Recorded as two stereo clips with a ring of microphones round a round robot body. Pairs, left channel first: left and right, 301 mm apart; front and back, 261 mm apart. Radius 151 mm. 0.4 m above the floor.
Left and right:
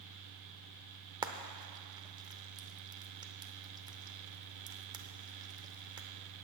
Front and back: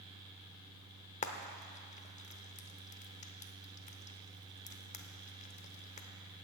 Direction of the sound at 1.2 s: 30° right.